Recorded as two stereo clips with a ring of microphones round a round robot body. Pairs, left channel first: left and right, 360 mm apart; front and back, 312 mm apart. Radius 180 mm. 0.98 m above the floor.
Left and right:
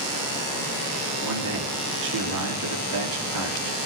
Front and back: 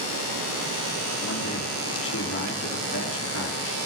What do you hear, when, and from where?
1.2 s a man speaking: 55° right, 2.5 m